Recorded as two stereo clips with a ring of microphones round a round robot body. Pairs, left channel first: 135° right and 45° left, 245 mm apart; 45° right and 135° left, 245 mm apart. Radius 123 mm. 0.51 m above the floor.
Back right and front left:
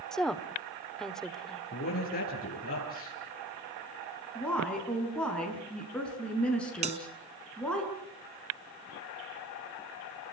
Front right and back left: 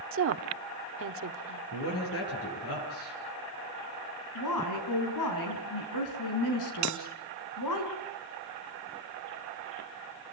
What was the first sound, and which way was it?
A woman speaking, 140° left.